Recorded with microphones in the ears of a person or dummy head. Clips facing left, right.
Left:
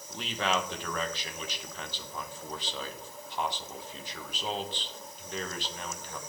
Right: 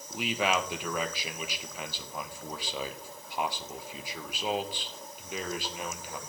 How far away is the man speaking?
About 1.1 m.